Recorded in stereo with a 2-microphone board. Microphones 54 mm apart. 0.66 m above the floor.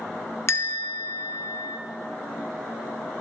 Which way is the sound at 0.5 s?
55° left (ahead or behind).